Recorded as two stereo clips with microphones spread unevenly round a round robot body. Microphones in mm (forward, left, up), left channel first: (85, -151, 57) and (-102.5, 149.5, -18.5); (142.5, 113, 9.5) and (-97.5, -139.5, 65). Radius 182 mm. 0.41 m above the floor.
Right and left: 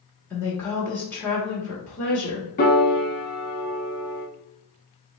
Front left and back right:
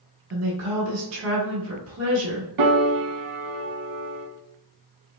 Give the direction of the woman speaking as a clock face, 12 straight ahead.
5 o'clock.